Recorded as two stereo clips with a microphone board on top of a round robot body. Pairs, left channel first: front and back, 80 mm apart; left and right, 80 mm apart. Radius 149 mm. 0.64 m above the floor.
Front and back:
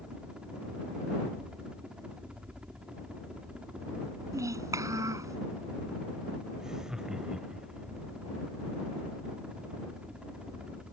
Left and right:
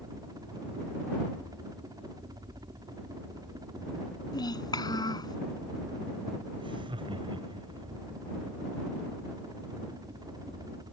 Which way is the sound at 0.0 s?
105° right.